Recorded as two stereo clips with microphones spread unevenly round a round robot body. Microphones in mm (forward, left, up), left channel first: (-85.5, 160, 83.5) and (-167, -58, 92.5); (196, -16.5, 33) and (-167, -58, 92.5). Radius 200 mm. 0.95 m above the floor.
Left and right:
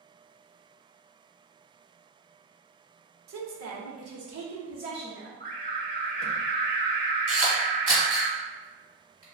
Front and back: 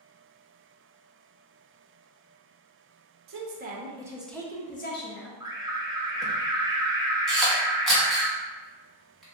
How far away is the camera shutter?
About 1.3 m.